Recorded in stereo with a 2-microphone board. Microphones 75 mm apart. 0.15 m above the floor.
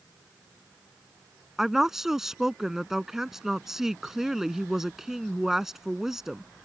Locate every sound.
1.6 s a woman speaking: 5° right (ahead or behind)